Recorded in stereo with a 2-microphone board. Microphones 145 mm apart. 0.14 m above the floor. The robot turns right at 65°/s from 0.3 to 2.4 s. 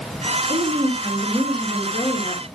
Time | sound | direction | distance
0.5 | a woman speaking | 75° right | 3 m